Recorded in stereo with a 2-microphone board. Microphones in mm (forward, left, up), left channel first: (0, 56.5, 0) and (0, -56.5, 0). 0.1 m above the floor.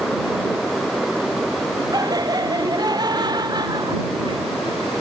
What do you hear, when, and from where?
1.9 s laughter: 35° right (ahead or behind); by 4.4 s 40° right (ahead or behind)